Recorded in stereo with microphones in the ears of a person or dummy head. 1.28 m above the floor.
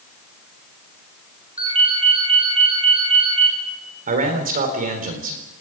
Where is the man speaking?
40° right (ahead or behind), 3.5 m.